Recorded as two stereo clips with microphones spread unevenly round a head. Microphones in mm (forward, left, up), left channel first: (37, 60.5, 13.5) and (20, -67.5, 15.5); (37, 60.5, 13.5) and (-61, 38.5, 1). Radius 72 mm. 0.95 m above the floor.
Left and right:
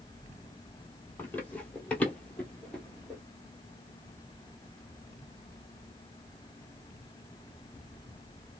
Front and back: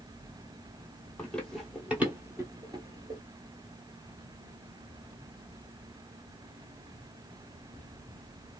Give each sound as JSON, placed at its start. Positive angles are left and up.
{"t": 1.2, "sound": "running footsteps", "azimuth_deg": 30, "distance_m": 1.0}